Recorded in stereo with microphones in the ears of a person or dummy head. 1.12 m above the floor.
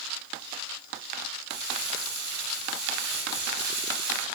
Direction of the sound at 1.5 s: 55° right (ahead or behind).